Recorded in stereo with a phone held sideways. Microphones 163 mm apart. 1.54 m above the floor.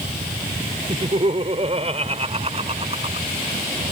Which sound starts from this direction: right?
Laughter, at 0.9 s.